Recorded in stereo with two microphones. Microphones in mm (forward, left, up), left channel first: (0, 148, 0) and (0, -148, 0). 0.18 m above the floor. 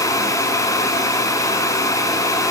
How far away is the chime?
No chime in this recording.